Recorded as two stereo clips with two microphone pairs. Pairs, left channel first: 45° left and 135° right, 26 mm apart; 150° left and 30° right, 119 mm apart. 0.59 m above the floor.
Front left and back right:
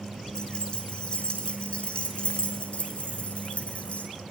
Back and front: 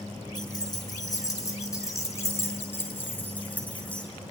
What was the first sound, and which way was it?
Keys jangling, 95° left.